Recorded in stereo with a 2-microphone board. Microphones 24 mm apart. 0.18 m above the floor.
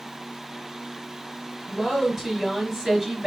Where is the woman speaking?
10° right (ahead or behind), 2.5 m.